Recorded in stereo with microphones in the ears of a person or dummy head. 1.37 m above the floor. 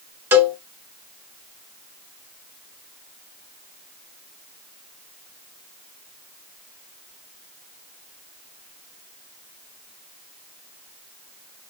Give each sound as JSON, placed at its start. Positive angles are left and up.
{"t": 0.3, "sound": "a cowbell", "side_deg": -15, "distance_m": 1.5}